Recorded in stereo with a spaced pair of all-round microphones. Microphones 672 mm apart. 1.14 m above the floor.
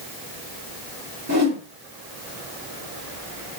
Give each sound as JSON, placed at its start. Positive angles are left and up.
{"t": 1.3, "sound": "a whoosh", "side_deg": -25, "distance_m": 3.5}